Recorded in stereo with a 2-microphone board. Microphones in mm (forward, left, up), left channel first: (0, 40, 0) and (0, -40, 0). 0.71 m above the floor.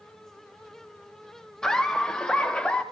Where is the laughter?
10° left (ahead or behind), 0.6 m; by 2.8 s 20° left (ahead or behind), 1.1 m.